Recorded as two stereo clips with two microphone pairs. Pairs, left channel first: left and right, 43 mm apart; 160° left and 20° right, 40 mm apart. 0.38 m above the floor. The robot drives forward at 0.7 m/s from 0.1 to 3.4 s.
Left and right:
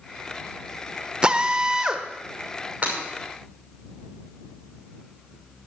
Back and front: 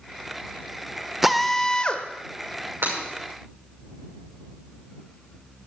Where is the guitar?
I don't hear a guitar.